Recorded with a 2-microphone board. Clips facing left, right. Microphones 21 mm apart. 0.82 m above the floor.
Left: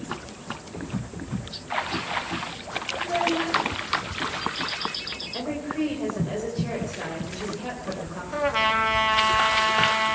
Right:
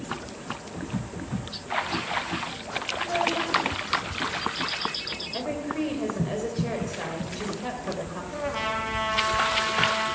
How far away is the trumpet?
About 1.8 m.